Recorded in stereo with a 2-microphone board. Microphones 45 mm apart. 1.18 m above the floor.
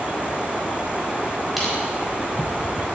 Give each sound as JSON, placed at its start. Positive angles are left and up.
{"t": 1.6, "sound": "crushing", "side_deg": -5, "distance_m": 4.0}